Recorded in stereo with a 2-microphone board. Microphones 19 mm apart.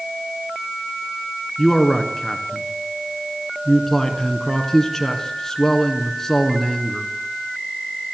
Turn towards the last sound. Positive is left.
turn(degrees=15)  # may be behind; listen again after turning